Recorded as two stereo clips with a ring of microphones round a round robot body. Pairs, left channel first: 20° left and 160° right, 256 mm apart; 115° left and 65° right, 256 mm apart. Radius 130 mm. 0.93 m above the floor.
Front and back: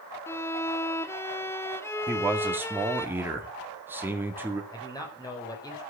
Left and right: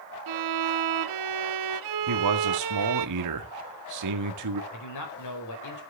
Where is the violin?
60° right, 0.9 m.